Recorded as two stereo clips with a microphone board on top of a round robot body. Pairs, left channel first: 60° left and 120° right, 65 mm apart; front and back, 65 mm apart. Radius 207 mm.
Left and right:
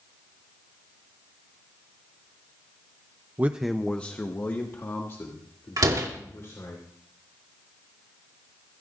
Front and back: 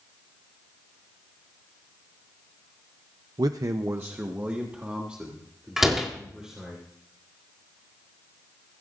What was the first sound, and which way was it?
A man speaking, straight behind.